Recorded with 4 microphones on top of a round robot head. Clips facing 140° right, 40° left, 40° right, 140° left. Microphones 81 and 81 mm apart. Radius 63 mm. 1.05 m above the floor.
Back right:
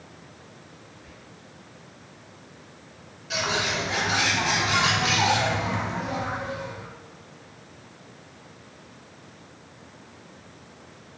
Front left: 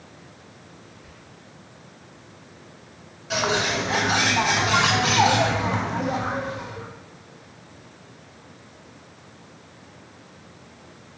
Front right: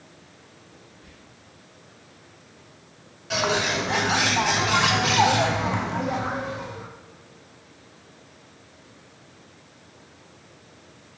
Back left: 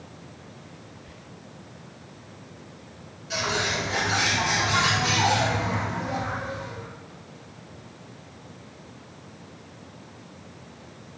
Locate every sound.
1.0 s whispering: 65° right, 1.8 m
3.3 s a bird: 5° right, 0.6 m